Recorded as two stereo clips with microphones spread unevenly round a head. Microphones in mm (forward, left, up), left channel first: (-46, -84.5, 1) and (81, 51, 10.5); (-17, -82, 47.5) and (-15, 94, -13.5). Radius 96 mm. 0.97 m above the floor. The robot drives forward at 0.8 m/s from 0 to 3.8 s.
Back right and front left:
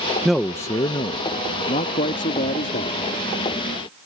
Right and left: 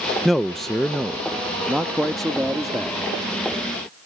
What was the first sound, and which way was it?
A man speaking, 135° left.